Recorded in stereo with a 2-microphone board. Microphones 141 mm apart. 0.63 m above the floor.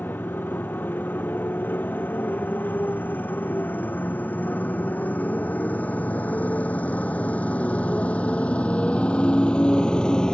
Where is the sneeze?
I don't hear a sneeze.